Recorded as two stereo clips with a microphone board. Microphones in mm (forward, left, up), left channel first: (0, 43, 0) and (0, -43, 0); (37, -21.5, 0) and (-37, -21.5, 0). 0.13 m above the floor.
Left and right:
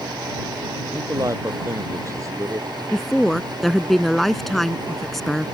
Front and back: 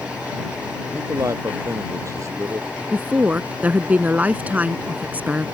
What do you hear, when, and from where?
0.9 s a man speaking: 140° right
2.9 s a woman speaking: 175° left